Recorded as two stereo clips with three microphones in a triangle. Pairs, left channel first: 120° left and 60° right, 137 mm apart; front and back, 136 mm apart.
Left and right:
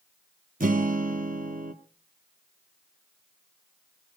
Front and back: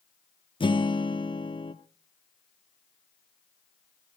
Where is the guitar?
55° right, 0.9 m.